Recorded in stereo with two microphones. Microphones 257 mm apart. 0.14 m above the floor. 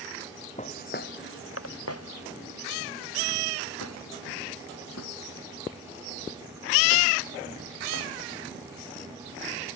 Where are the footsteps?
30° left (ahead or behind); by 8.1 s 75° left (ahead or behind).